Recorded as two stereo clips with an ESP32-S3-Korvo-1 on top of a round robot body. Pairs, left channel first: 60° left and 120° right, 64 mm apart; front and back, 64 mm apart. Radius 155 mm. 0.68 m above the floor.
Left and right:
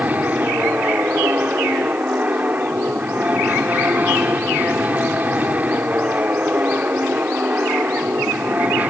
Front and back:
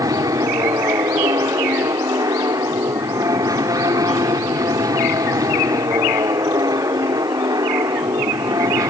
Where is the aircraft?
Straight behind.